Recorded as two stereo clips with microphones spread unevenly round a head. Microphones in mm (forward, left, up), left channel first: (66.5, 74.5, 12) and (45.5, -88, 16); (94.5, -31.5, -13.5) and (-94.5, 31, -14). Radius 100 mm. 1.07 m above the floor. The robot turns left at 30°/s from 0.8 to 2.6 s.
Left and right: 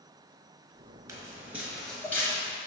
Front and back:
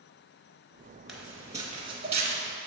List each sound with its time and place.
1.1 s footsteps: 110° right, 1.0 m; by 2.4 s 140° left, 1.2 m